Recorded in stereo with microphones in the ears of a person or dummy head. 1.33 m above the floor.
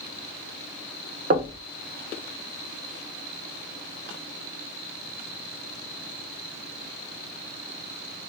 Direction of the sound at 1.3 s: 40° right (ahead or behind).